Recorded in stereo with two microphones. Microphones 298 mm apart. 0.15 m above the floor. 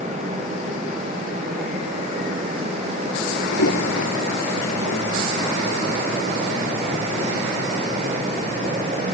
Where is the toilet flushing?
60° left (ahead or behind).